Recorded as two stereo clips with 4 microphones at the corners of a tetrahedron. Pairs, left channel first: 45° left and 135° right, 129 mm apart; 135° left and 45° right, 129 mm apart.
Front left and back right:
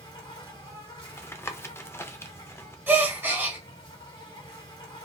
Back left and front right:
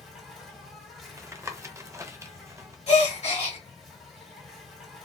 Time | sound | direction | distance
0.0 | an insect | 45° left | 1.8 m
1.2 | tapping | 10° right | 0.5 m
2.9 | a gasp | 155° left | 1.2 m